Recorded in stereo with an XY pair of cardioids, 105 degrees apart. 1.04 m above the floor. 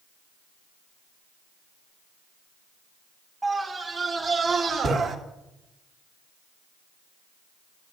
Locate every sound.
3.4 s a scream: 20° right, 2.5 m; by 5.2 s 55° right, 2.5 m